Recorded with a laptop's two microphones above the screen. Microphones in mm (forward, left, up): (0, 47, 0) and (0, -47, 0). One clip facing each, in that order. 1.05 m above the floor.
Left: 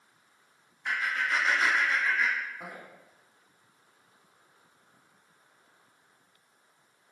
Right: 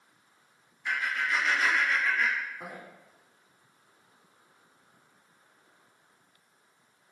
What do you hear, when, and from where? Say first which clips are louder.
0.8 s laughter: even; 55° left (ahead or behind), 1.3 m; by 2.8 s 5° right (ahead or behind), 1.0 m